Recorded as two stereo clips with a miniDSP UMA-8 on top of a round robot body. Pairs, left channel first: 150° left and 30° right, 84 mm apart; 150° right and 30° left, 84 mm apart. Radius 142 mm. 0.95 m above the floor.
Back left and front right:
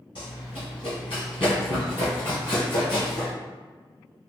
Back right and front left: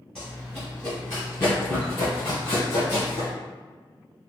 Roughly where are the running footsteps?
Behind left.